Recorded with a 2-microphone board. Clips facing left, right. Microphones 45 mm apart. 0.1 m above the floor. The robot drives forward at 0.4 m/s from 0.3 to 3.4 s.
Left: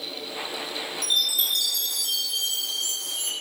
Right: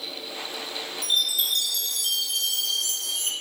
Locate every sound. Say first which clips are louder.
1.0 s a chime: even; 40° right (ahead or behind), 0.9 m; by 3.3 s 65° right (ahead or behind), 0.6 m